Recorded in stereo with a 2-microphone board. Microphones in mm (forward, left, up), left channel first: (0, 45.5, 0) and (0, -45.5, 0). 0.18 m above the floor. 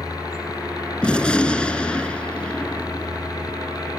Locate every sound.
0.0 s a helicopter: 45° left (ahead or behind)
1.0 s a gunshot: 10° left (ahead or behind)